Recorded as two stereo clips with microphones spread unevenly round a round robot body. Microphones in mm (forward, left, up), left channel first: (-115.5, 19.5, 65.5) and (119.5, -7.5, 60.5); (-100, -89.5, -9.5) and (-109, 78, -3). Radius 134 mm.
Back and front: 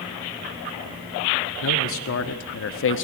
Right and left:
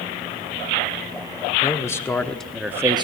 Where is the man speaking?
155° right, 1.6 m; by 3.0 s 150° left, 0.8 m.